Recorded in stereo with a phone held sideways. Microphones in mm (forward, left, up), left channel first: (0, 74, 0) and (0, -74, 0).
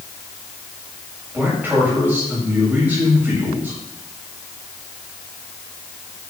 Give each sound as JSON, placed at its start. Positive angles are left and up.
{"t": 1.3, "sound": "a man speaking", "side_deg": -10, "distance_m": 8.5}